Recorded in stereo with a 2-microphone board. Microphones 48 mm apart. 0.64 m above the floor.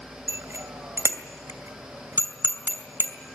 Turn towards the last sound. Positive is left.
turn(degrees=-70)  # may be behind; listen again after turning